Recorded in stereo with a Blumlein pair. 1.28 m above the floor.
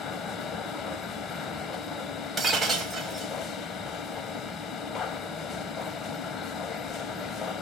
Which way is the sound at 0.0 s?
20° left.